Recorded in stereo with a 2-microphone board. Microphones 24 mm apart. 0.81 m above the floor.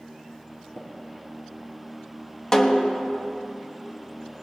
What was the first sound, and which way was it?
Tapping, 80° left.